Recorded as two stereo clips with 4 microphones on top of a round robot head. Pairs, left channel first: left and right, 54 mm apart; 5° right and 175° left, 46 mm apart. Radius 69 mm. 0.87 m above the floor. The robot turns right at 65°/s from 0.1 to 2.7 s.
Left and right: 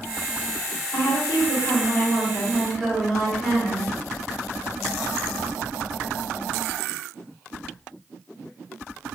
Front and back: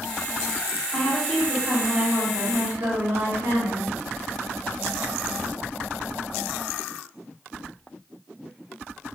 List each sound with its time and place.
0.9 s a woman speaking: 65° left, 1.9 m; by 3.9 s straight behind, 1.9 m